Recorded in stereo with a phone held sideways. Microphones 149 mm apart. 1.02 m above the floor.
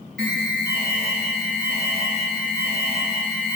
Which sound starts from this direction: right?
An alarm, at 0.2 s.